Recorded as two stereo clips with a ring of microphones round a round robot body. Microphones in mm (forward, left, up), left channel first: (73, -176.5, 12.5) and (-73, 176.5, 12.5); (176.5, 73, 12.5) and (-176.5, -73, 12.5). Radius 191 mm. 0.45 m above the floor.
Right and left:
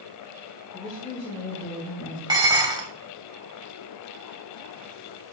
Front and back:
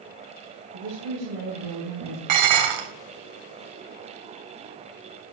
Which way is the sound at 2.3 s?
170° right.